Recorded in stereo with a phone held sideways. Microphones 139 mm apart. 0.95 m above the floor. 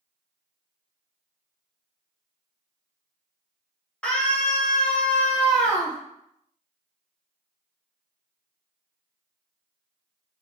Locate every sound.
4.0 s a scream: 5° left (ahead or behind), 1.3 m